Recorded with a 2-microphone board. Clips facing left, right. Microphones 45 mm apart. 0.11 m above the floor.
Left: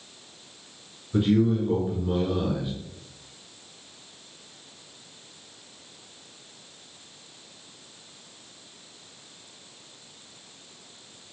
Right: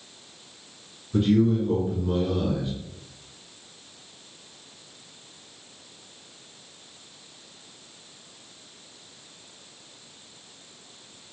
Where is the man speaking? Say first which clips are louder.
Right 1 dB; 10° left (ahead or behind), 1.5 m.